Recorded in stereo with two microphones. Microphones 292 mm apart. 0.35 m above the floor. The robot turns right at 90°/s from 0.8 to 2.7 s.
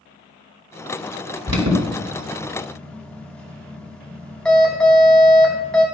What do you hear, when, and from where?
1.5 s an alarm: 60° right (ahead or behind), 4 m; by 5.8 s 5° left (ahead or behind), 4 m